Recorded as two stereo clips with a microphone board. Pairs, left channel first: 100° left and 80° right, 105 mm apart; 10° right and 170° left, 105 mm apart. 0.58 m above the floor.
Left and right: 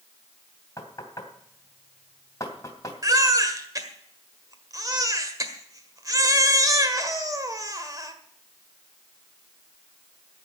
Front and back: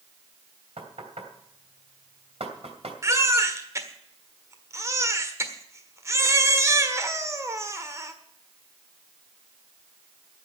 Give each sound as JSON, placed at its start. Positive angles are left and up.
{"t": 0.8, "sound": "knocking", "azimuth_deg": 160, "distance_m": 2.5}
{"t": 3.0, "sound": "a baby crying", "azimuth_deg": -130, "distance_m": 1.5}